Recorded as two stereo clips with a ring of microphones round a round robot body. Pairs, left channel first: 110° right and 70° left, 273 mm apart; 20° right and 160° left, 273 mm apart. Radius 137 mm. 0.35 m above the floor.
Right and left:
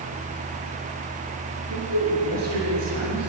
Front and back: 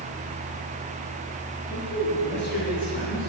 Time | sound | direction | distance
1.7 | a man speaking | 35° left | 6 m